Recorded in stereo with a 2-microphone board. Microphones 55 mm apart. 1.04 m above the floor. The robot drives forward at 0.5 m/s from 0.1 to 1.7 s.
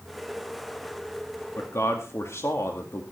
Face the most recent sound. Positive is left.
turn(degrees=55)  # may be behind; listen again after turning